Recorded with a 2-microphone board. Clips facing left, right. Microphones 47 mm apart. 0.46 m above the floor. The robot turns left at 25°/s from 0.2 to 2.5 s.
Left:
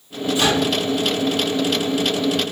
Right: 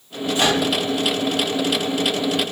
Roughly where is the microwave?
Right.